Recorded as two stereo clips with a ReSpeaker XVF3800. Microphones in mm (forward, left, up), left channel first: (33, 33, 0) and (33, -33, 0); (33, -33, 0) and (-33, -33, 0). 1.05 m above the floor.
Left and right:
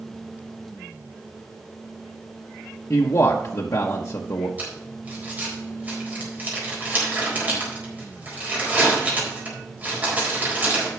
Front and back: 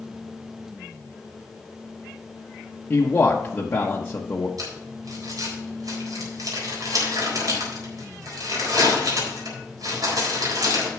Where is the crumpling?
155° right, 4 m.